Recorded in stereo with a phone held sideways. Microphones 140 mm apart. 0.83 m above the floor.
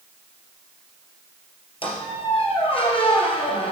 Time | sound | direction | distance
1.8 | a squeak | 40° left (ahead or behind) | 3 m